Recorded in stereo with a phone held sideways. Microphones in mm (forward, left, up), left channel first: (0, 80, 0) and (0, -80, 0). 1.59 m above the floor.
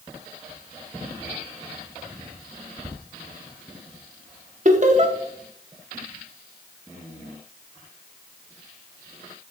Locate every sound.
4.7 s laughter: 50° right (ahead or behind), 1.1 m